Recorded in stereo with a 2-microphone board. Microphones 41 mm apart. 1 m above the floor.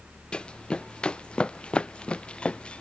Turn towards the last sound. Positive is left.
turn(degrees=25)  # may be behind; listen again after turning